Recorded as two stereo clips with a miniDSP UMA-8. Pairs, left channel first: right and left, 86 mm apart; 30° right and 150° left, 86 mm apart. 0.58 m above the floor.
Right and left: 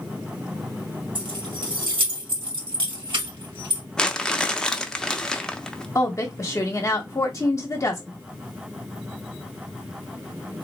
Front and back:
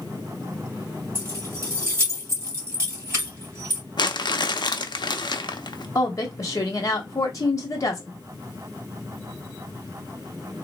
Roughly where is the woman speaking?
Ahead right.